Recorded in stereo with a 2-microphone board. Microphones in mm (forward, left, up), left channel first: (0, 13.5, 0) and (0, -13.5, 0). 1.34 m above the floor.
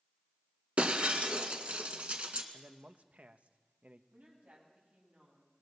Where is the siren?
I don't hear a siren.